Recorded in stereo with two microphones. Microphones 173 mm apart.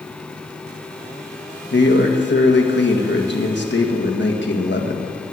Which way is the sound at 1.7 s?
85° left.